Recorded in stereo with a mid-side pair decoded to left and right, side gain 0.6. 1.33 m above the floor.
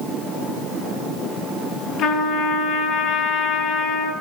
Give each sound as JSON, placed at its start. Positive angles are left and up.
{"t": 2.0, "sound": "a trumpet", "azimuth_deg": 60, "distance_m": 7.5}